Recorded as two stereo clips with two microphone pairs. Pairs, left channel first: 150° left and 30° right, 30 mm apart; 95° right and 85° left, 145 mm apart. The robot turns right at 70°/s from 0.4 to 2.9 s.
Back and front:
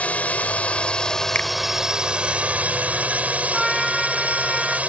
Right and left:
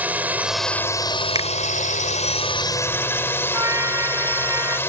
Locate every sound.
0.0 s a drone: 160° left; by 4.9 s 25° right
1.4 s a finger snap: 145° left; by 1.5 s 155° left
3.5 s a trumpet: 65° left